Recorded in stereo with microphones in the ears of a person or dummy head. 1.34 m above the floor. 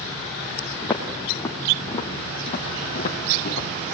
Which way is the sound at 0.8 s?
10° left (ahead or behind).